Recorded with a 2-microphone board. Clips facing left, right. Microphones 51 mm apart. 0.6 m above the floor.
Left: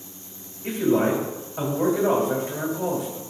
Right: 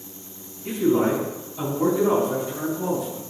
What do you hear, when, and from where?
0.6 s a man speaking: 55° left (ahead or behind), 3.5 m